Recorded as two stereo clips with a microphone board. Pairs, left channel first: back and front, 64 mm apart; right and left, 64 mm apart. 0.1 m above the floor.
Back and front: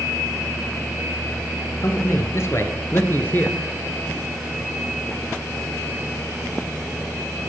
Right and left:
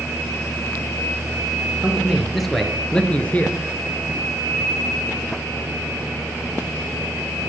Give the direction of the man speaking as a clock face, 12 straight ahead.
6 o'clock.